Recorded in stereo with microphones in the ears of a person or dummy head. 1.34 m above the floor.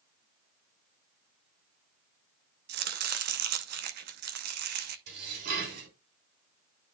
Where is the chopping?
50° right (ahead or behind), 0.7 m.